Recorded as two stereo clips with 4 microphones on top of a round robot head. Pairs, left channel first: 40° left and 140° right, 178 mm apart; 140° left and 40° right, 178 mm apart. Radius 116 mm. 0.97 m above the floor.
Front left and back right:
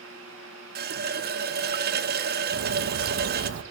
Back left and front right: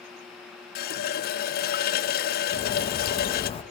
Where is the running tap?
Straight behind, 0.9 m.